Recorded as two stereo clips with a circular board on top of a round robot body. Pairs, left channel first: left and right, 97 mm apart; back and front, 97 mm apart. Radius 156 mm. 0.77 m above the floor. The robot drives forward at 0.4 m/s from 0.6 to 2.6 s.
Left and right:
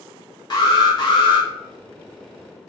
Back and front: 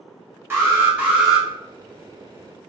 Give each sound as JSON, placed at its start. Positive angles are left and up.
{"t": 0.5, "sound": "an alarm", "azimuth_deg": 60, "distance_m": 1.0}